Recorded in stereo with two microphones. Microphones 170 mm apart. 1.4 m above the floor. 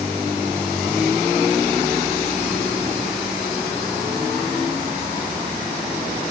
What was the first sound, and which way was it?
Only background noise.